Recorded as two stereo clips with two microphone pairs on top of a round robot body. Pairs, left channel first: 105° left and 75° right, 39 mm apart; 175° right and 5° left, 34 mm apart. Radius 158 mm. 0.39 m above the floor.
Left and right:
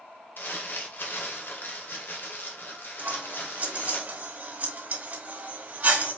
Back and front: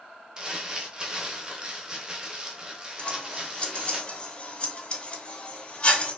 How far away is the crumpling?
About 0.8 m.